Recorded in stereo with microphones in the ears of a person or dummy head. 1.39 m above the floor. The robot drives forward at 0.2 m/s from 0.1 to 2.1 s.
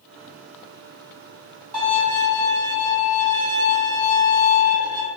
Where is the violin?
45° right (ahead or behind), 1.6 m.